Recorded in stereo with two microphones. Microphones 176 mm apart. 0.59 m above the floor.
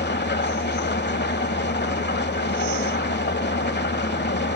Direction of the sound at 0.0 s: 75° left (ahead or behind).